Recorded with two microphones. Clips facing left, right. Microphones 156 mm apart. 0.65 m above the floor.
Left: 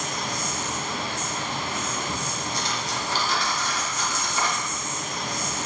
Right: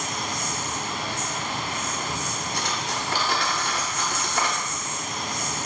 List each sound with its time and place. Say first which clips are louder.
0.0 s an insect: even; centre (ahead or behind), 2.5 m
2.5 s cutlery clinking: right 2 dB; 60° right (ahead or behind), 0.7 m